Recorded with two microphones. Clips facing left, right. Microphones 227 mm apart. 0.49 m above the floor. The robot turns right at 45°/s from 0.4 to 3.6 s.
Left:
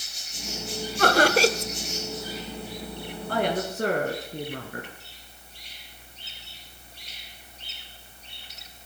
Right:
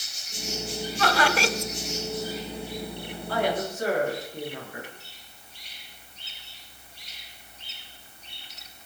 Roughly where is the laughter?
Left.